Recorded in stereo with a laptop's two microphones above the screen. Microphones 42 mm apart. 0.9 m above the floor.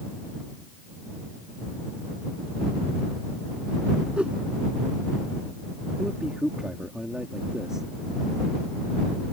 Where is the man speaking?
15° right (ahead or behind).